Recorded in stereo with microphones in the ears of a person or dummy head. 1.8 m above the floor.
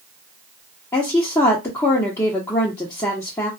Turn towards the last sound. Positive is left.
turn(degrees=15)  # may be behind; listen again after turning